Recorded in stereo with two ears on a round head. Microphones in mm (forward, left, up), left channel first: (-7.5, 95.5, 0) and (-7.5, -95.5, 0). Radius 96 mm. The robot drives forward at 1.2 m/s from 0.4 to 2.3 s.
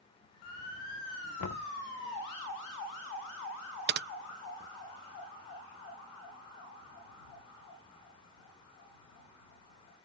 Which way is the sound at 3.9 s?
50° right (ahead or behind).